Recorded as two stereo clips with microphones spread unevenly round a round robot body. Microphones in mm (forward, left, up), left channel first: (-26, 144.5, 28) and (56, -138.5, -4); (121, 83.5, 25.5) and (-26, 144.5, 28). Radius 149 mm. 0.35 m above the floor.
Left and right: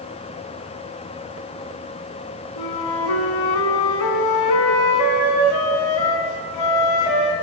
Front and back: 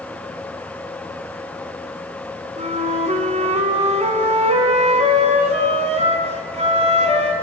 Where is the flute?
110° left, 3 m.